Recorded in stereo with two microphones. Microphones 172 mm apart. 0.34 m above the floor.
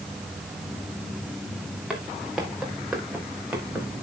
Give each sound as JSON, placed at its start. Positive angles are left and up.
{"t": 1.9, "sound": "footsteps", "side_deg": -5, "distance_m": 4.5}